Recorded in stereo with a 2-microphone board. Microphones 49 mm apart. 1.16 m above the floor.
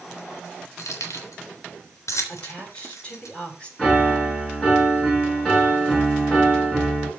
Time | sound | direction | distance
0.8 | keys jangling | 85° left | 3.5 m
2.3 | a woman speaking | 25° left (ahead or behind) | 5 m
3.8 | a piano | 10° left (ahead or behind) | 6.5 m